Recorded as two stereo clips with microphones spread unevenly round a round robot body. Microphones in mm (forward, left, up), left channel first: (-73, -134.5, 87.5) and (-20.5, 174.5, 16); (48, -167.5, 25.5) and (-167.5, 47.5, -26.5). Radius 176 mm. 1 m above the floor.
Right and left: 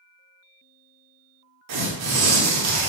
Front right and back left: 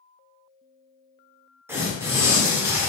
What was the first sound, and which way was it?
Tearing paper, 45° left.